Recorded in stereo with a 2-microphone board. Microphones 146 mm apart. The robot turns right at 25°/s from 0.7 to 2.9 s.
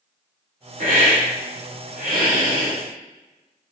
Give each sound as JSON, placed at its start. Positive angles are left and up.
{"t": 0.8, "sound": "a hiss", "azimuth_deg": -115, "distance_m": 1.2}